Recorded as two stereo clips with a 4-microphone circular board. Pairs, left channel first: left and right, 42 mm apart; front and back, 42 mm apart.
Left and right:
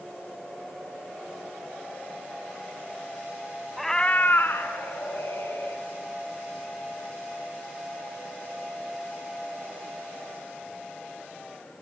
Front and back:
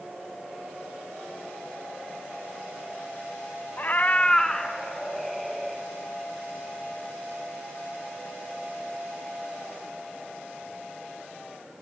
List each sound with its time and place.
3.8 s a cat meowing: 5° right, 0.6 m; by 5.8 s 90° left, 2.5 m